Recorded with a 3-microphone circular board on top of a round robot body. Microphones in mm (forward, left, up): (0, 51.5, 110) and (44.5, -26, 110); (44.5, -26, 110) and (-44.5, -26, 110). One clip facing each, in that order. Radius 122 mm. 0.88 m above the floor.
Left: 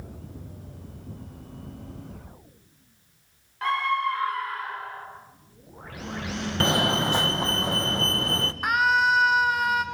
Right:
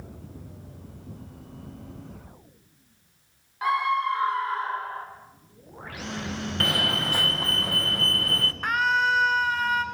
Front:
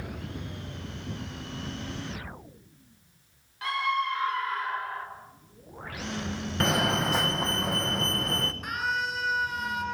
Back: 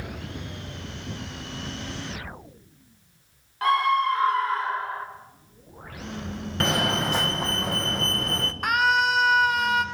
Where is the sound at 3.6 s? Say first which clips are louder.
Right 1 dB, back 7 dB; 140° right, 3.5 m; by 5.1 s 115° right, 4.5 m.